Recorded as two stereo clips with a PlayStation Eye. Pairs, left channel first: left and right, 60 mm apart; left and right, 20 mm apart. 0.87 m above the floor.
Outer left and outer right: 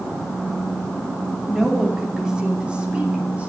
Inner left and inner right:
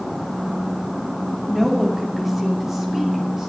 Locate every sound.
1.5 s a woman speaking: 5° right (ahead or behind), 2.5 m; by 3.5 s 25° right (ahead or behind), 3.5 m